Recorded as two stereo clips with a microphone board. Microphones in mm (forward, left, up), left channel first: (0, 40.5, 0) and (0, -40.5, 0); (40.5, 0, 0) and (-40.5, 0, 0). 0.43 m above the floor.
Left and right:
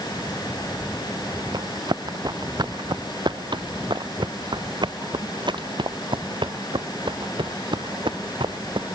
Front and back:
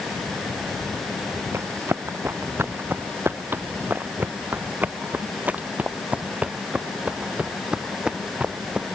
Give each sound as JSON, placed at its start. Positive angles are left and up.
{"t": 1.5, "sound": "running footsteps", "azimuth_deg": -125}